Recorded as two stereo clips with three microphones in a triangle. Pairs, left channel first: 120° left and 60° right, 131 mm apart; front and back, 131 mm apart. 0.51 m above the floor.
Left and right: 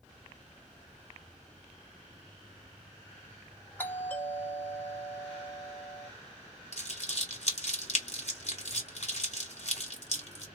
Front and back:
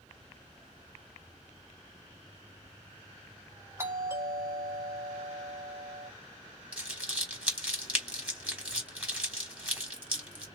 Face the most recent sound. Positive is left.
turn(degrees=100)